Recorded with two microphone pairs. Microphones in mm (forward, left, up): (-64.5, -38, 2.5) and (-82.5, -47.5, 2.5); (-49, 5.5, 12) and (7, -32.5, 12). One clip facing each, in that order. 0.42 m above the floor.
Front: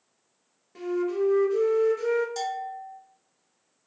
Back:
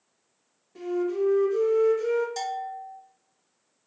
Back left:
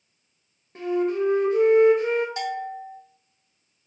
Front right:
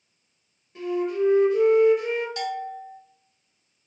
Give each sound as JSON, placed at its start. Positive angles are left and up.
{"t": 0.8, "sound": "a flute", "azimuth_deg": 100, "distance_m": 0.6}
{"t": 2.4, "sound": "a bell", "azimuth_deg": 165, "distance_m": 0.6}